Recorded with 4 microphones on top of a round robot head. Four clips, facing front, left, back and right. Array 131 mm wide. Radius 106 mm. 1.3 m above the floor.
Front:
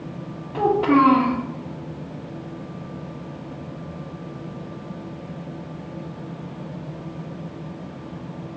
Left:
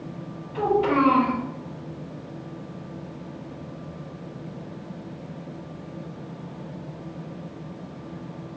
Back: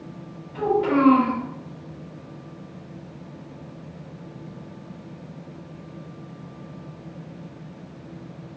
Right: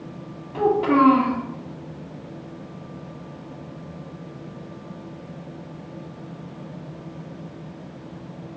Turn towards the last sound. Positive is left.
turn(degrees=-10)